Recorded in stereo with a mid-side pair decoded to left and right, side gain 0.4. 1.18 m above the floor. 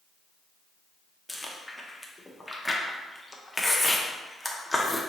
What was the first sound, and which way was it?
Chewing, 10° left.